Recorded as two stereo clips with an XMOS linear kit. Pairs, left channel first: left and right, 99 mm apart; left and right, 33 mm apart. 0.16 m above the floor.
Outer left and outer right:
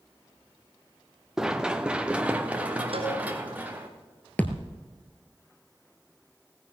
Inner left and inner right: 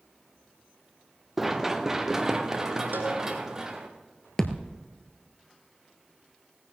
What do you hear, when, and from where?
1.4 s running footsteps: 5° right (ahead or behind), 1.0 m; by 3.9 s 15° right (ahead or behind), 2.5 m
2.9 s a cowbell: 75° right (ahead or behind), 3 m
4.4 s a thud: 15° left (ahead or behind), 1.2 m